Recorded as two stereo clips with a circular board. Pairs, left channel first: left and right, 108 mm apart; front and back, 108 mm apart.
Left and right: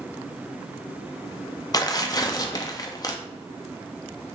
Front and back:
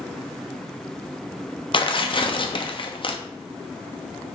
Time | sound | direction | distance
1.7 | tearing paper | 35° left | 0.5 m